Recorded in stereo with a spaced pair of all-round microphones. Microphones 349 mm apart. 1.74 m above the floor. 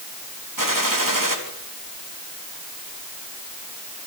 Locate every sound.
0.6 s a gunshot: 65° right (ahead or behind), 3.5 m